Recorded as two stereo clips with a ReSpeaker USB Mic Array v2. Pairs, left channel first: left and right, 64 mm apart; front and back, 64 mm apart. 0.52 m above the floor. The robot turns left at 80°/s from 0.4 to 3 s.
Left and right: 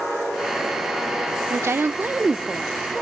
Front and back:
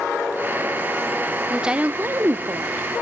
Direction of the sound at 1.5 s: 95° right.